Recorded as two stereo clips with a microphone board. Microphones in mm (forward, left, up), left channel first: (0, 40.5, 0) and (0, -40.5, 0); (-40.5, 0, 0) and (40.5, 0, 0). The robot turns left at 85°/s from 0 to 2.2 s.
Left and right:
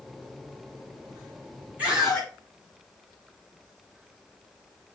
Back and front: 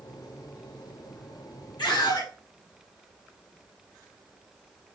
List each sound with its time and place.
1.8 s a scream: 160° right, 4.5 m; by 2.3 s 165° left, 4.5 m